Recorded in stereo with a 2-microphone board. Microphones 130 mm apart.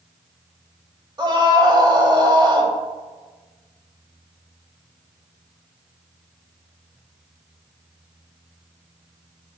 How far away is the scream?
About 1.5 m.